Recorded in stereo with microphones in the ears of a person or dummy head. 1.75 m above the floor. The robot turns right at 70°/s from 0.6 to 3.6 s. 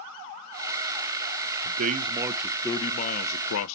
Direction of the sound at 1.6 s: 60° right.